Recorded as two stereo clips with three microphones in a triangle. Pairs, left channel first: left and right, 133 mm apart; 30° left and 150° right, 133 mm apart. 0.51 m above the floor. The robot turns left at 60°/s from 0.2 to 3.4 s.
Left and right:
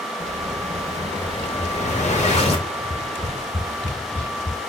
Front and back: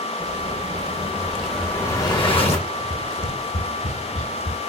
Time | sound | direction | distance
0.2 | an explosion | 165° right | 1.3 m
2.7 | tapping | 50° left | 1.4 m